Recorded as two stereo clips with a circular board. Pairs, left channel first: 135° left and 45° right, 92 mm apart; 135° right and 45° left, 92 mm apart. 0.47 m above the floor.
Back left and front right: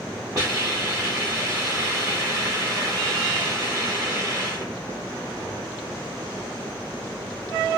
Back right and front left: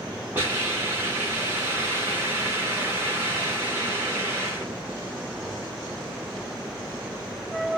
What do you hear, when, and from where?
0.3 s a hiss: 10° right, 1.2 m